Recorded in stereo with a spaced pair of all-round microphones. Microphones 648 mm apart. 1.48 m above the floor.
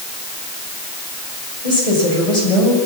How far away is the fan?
No fan in this recording.